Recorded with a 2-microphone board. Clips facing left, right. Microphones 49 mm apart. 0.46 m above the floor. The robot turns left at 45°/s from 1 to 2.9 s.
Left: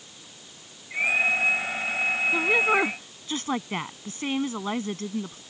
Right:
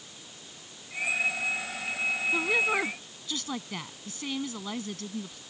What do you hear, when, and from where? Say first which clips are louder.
2.3 s a woman speaking: left 5 dB; 10° left (ahead or behind); by 5.4 s 35° left (ahead or behind)